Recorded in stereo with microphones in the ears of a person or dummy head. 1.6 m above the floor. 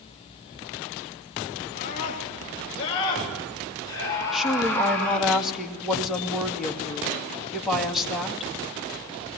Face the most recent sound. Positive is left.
turn(degrees=0)  # may be behind; listen again after turning